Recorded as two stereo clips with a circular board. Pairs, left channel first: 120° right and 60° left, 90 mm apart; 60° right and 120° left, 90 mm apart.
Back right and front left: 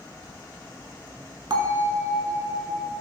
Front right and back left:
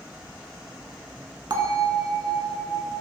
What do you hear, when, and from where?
1.5 s a bell: 85° left, 0.5 m